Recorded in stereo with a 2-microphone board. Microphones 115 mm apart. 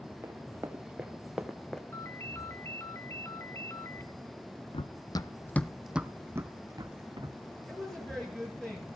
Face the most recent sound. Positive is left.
turn(degrees=5)  # may be behind; listen again after turning